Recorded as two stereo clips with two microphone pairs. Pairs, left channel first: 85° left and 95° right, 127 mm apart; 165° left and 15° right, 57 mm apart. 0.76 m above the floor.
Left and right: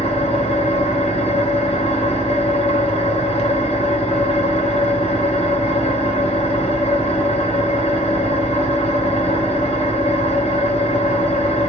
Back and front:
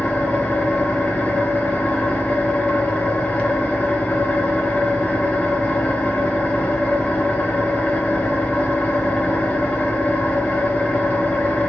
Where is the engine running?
95° left, 1.0 m.